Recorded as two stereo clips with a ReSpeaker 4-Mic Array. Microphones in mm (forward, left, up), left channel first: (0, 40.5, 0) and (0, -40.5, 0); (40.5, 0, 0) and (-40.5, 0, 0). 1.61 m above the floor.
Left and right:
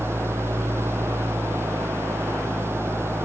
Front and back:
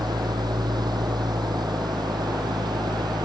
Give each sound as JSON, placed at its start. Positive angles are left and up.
{"t": 0.0, "sound": "an engine running", "azimuth_deg": -150}